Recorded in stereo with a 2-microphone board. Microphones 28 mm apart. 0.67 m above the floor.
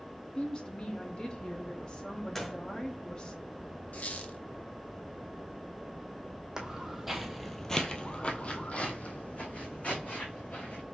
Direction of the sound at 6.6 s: 15° right (ahead or behind).